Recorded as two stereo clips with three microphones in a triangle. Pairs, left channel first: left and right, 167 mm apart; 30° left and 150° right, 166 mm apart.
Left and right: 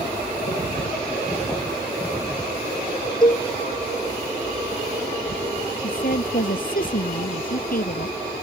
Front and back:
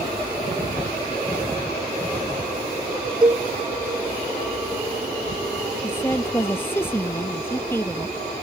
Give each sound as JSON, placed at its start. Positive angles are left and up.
{"t": 3.2, "sound": "a cowbell", "azimuth_deg": 150}
{"t": 5.8, "sound": "a woman speaking", "azimuth_deg": 105}